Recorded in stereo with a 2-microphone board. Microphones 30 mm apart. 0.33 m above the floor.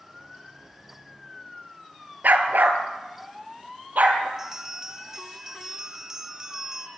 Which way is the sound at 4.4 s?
15° right (ahead or behind).